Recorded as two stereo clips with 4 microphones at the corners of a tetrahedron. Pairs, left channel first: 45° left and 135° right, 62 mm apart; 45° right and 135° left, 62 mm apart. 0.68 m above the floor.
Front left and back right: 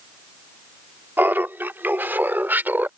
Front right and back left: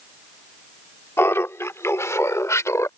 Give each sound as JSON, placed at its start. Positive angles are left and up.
{"t": 1.2, "sound": "laughter", "azimuth_deg": -85}